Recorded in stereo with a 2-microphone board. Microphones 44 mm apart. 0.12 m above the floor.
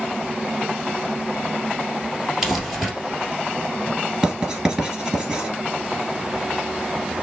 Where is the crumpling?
5° right (ahead or behind), 1.7 m.